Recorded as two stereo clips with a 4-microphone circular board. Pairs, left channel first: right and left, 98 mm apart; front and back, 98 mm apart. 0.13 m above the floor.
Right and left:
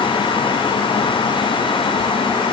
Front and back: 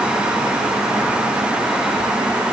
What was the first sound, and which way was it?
Only background noise.